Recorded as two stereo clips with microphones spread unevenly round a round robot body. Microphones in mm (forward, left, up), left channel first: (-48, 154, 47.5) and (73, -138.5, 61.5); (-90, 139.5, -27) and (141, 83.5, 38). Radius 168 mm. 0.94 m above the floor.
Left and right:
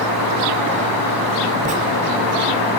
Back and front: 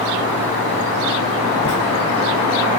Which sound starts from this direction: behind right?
Writing, at 1.6 s.